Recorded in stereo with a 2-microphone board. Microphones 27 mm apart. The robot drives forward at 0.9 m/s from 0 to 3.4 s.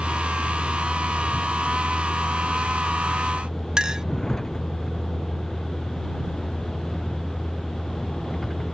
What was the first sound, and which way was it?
A vehicle, 25° left (ahead or behind).